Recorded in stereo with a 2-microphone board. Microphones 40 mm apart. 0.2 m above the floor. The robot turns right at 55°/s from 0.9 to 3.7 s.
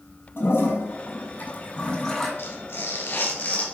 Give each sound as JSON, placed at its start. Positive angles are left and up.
{"t": 0.4, "sound": "a toilet flushing", "azimuth_deg": 100, "distance_m": 5.5}
{"t": 2.4, "sound": "tearing paper", "azimuth_deg": 75, "distance_m": 2.5}